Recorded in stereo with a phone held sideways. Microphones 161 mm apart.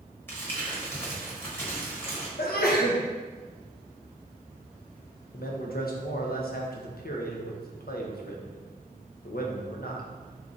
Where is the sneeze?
70° left (ahead or behind), 0.7 m.